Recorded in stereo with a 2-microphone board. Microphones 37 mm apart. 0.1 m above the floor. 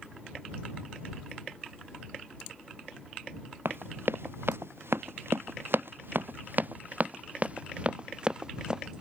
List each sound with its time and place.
3.6 s running footsteps: 65° right (ahead or behind); by 9.0 s 20° right (ahead or behind)